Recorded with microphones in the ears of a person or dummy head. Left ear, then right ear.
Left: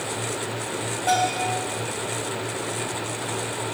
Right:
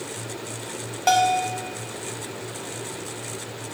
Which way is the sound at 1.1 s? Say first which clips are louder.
Right 3 dB; 50° right (ahead or behind).